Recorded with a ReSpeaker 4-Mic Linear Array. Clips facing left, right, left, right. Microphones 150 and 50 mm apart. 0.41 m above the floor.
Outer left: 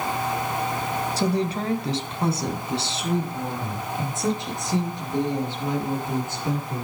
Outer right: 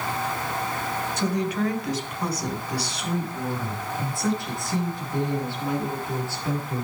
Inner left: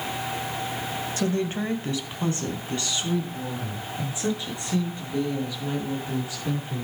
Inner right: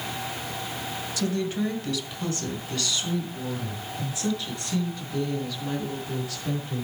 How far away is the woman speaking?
About 2.0 m.